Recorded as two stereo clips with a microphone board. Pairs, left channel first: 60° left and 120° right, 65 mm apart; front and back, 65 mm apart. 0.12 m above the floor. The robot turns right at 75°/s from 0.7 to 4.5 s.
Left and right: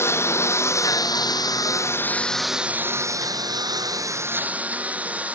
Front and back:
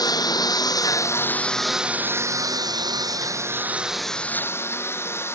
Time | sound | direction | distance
0.0 | a lawn mower | 10° left | ?